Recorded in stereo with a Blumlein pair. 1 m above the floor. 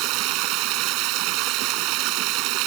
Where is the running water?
40° right.